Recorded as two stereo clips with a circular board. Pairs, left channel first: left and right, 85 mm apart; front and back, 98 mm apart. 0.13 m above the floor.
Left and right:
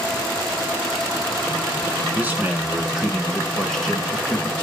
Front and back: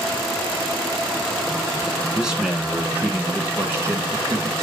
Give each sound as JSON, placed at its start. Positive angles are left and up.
{"t": 2.1, "sound": "a man speaking", "azimuth_deg": -105, "distance_m": 1.5}